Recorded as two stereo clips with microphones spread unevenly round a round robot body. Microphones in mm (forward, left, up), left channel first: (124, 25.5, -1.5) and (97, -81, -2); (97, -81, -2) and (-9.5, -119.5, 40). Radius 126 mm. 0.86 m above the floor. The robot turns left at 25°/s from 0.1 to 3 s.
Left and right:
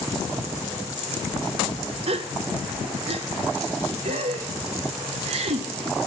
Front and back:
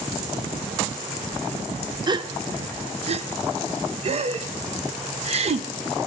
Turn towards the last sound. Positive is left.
turn(degrees=-120)